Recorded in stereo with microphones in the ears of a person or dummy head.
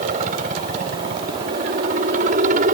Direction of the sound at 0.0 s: 45° right (ahead or behind).